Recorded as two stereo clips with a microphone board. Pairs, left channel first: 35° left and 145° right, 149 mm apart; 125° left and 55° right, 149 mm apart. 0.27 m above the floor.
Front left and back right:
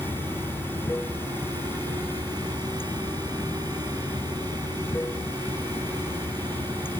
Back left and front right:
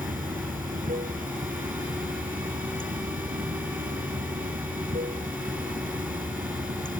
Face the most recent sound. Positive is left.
turn(degrees=-40)